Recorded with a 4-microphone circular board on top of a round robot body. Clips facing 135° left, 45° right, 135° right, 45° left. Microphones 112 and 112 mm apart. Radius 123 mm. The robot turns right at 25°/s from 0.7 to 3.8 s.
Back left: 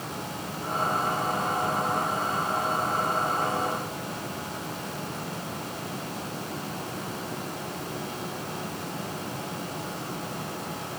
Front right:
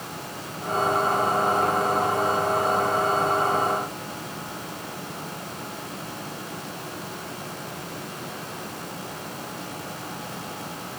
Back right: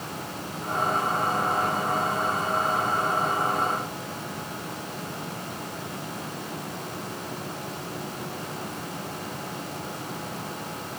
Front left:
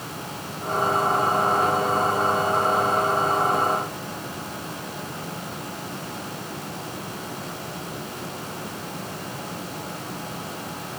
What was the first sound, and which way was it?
Only background noise.